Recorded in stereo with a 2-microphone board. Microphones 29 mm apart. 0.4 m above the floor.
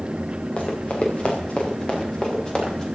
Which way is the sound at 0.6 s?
45° left (ahead or behind).